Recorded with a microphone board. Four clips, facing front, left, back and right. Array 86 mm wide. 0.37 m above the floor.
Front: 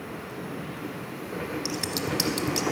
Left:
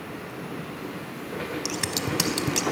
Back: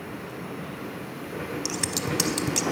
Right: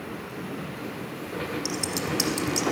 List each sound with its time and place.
1.6 s scissors: 110° left, 0.6 m